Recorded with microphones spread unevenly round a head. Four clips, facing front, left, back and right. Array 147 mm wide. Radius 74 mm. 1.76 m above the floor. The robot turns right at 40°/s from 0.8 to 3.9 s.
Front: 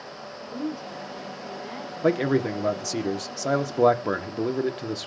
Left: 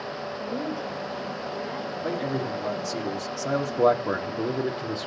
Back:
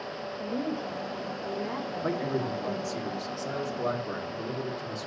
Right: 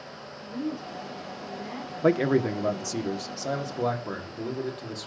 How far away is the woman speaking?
About 3 m.